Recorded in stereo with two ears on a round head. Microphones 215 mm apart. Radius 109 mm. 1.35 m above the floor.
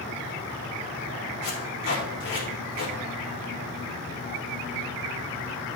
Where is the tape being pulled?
50° left (ahead or behind), 4 m.